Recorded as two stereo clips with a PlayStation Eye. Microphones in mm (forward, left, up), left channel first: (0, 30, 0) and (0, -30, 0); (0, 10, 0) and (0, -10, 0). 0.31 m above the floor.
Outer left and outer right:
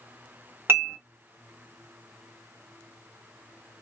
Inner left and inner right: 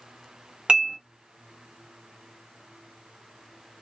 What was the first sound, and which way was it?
Dishes clattering, 45° right (ahead or behind).